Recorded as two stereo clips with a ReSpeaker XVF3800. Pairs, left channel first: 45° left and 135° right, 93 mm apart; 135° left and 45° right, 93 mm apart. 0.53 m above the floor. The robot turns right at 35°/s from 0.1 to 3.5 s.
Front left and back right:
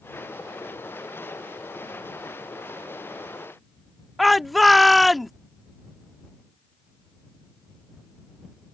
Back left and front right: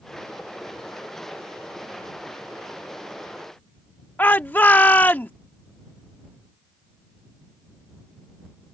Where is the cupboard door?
No cupboard door in this recording.